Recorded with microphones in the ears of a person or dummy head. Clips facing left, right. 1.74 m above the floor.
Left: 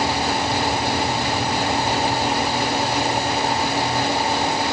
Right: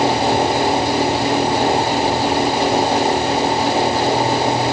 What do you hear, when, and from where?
Only background noise.